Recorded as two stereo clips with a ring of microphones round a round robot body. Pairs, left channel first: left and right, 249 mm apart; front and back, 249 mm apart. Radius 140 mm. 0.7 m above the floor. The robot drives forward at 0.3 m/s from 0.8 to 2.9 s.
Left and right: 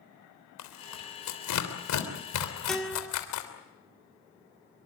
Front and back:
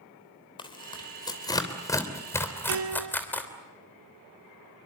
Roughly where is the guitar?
Behind.